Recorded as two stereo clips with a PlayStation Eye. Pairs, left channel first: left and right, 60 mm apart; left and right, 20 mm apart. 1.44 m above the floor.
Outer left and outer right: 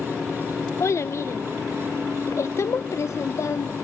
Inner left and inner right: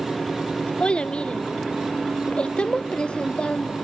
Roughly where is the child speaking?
Left.